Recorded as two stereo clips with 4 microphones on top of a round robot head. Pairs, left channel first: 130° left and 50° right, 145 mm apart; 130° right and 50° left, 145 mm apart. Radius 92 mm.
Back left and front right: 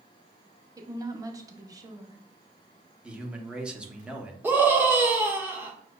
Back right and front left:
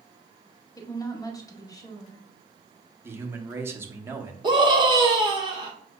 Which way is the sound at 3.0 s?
15° left.